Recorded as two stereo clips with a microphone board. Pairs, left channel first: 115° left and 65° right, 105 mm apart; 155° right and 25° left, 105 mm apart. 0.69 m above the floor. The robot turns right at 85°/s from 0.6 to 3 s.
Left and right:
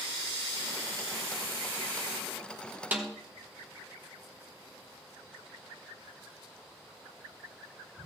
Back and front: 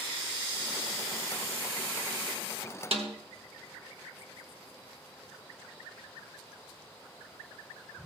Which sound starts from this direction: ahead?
A snare drum, at 2.9 s.